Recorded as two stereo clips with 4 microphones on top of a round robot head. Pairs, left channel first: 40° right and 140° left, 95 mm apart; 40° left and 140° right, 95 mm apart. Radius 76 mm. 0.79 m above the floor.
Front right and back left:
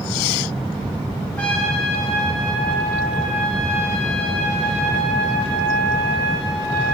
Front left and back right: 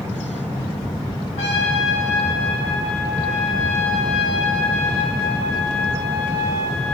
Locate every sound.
1.4 s a trumpet: 40° left, 6 m